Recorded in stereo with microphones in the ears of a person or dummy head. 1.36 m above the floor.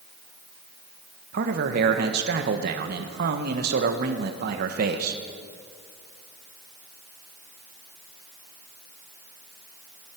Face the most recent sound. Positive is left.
turn(degrees=-60)  # may be behind; listen again after turning